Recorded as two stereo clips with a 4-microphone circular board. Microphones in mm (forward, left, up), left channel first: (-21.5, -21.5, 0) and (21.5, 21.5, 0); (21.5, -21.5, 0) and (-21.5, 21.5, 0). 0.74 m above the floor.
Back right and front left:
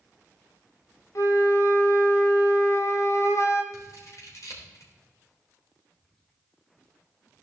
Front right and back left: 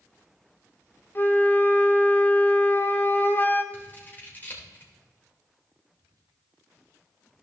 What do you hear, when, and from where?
1.1 s a flute: 100° right, 1.1 m
3.7 s scissors: 105° right, 3 m
6.0 s whispering: 150° left, 3 m